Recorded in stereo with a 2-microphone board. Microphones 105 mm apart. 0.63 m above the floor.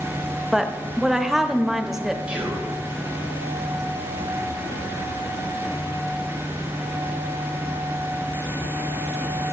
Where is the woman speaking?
5° right (ahead or behind), 0.6 m.